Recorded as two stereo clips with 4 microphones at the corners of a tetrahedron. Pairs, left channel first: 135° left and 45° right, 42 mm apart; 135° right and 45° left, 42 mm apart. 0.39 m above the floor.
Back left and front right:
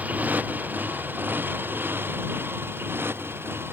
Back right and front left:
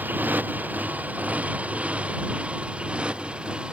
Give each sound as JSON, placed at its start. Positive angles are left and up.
{"t": 0.0, "sound": "a motorcycle", "azimuth_deg": 5}